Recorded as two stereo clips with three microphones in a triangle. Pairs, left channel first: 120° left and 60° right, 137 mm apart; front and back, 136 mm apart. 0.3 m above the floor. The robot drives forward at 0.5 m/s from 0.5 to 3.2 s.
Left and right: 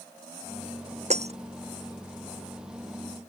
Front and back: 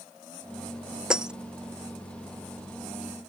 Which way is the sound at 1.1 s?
95° right.